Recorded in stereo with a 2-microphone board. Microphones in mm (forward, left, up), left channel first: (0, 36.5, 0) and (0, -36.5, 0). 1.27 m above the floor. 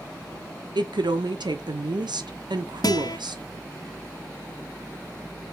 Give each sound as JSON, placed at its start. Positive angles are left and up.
{"t": 0.8, "sound": "a woman speaking", "side_deg": -80, "distance_m": 0.7}
{"t": 2.8, "sound": "a guitar", "side_deg": 65, "distance_m": 0.6}